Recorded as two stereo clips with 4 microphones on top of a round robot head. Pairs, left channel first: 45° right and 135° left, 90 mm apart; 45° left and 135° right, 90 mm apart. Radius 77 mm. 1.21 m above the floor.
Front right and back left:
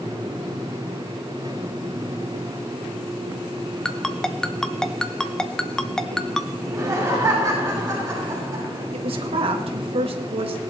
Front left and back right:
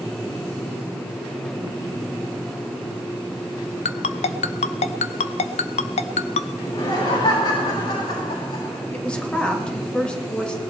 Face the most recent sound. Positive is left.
turn(degrees=125)